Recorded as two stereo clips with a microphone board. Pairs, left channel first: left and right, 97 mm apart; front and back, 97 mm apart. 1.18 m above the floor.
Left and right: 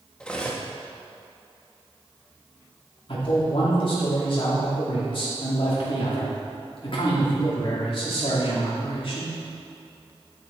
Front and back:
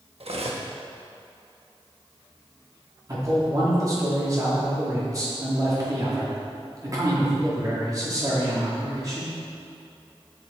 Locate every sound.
0.2 s cutlery clinking: 170° left, 1.1 m
3.1 s a man speaking: 125° left, 2 m